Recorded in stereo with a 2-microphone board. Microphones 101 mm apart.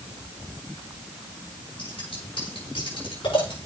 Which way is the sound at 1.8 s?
70° left (ahead or behind).